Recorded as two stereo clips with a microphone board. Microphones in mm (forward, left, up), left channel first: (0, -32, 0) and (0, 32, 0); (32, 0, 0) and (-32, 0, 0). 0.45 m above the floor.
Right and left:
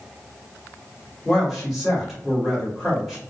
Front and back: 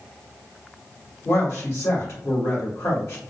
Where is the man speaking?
Straight ahead, 1.9 m.